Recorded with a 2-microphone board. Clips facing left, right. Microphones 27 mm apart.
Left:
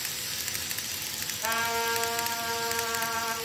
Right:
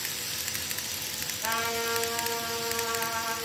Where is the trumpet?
15° left (ahead or behind), 2 m.